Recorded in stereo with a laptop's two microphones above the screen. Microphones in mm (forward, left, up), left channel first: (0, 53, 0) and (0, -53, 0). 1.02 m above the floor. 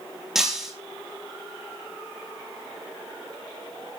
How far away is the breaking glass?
About 1.9 m.